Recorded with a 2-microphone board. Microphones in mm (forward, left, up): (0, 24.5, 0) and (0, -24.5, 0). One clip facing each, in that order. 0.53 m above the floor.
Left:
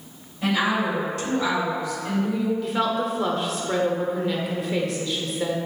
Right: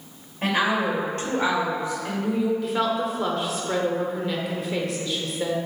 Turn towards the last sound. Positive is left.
turn(degrees=0)  # may be behind; listen again after turning